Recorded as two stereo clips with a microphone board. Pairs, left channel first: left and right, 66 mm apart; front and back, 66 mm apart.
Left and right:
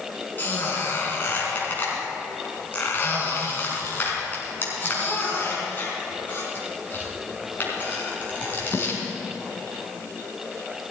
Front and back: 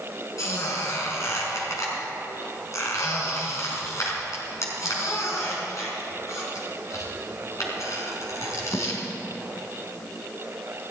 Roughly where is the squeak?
Ahead left.